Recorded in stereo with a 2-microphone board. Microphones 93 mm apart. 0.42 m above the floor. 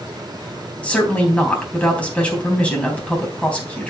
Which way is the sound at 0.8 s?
15° left (ahead or behind).